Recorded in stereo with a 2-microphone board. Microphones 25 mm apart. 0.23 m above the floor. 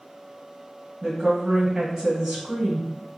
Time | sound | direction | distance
1.0 | a woman speaking | 20° right (ahead or behind) | 1.0 m